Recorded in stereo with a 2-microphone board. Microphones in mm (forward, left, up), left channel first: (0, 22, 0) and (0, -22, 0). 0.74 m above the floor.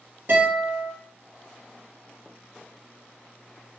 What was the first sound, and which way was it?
A guitar, 65° right (ahead or behind).